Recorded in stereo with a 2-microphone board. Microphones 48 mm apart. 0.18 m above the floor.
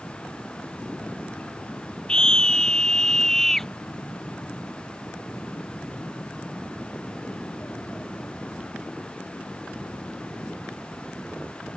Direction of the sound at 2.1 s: 15° left (ahead or behind).